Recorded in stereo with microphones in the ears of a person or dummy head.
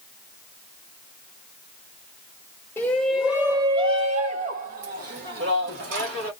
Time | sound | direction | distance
2.8 | a shout | 15° left (ahead or behind) | 0.9 m